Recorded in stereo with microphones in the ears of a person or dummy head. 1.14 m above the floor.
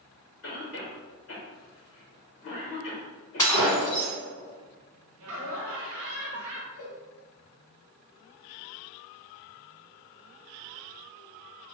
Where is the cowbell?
50° left (ahead or behind), 1.3 m.